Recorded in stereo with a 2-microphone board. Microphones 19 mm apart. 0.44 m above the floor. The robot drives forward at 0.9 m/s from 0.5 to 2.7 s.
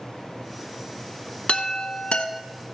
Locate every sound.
1.5 s a chime: 65° left (ahead or behind), 1.1 m; by 2.3 s 70° left (ahead or behind), 1.0 m